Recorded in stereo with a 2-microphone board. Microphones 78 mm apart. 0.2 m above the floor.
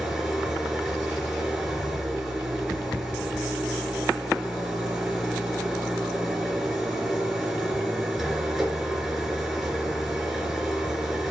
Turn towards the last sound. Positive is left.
turn(degrees=-5)  # may be behind; listen again after turning